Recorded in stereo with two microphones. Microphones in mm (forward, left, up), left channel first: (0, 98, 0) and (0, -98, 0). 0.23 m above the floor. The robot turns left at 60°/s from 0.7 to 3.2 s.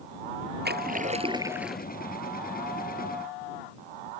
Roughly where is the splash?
Behind right.